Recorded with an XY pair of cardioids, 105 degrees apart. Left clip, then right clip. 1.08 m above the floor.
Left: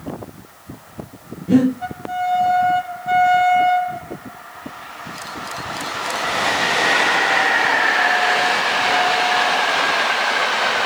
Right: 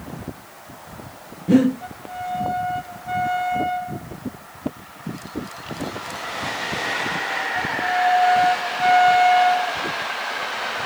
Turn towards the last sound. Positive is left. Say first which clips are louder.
# left 1 dB
turn(degrees=-20)